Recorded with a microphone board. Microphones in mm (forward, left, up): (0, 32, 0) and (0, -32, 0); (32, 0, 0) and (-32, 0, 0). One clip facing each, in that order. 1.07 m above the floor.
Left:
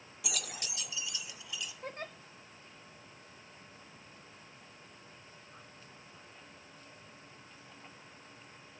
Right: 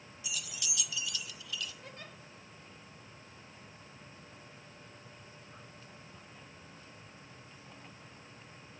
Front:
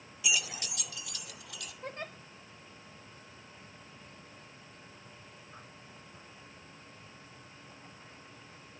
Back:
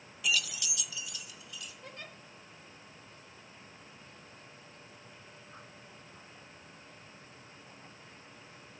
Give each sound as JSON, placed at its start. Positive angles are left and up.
{"t": 0.2, "sound": "keys jangling", "azimuth_deg": 85, "distance_m": 0.5}
{"t": 1.8, "sound": "a giggle", "azimuth_deg": 50, "distance_m": 2.5}